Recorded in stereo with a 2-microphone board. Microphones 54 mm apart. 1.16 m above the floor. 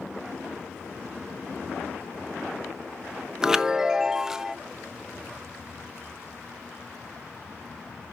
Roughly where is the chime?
Centre.